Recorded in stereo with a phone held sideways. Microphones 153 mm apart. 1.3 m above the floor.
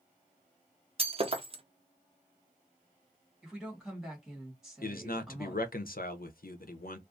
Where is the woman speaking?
5° right (ahead or behind), 1.6 m.